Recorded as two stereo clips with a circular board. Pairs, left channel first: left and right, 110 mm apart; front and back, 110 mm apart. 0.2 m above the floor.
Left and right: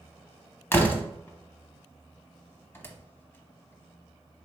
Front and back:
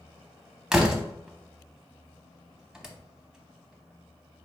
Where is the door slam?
110° left, 0.6 m.